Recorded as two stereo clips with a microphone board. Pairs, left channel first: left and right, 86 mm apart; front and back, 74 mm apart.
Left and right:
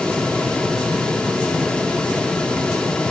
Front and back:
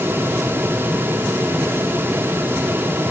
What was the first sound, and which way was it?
Only background noise.